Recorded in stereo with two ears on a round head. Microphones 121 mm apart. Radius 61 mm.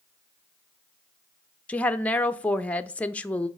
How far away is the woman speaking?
About 0.6 m.